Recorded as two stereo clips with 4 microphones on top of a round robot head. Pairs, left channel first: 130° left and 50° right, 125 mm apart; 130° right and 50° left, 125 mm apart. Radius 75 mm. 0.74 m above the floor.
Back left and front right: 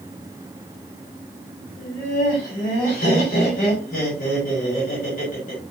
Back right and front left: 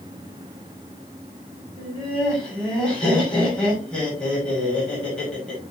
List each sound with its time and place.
1.8 s laughter: 145° left, 6 m